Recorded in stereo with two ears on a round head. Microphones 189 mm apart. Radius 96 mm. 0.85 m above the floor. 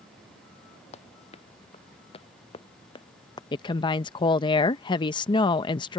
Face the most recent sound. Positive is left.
turn(degrees=20)  # may be behind; listen again after turning